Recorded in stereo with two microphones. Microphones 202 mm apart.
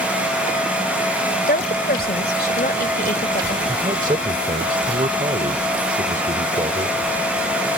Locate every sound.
1.5 s a woman speaking: 50° left (ahead or behind)
3.7 s a man speaking: 40° right (ahead or behind)